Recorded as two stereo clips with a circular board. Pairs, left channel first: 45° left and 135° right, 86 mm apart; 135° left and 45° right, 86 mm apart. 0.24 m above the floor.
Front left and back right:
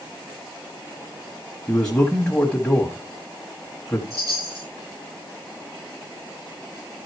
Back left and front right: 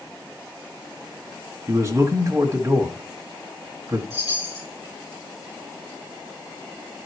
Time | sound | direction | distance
1.7 | a man speaking | 25° right | 1.3 m
4.1 | a chime | straight behind | 5.5 m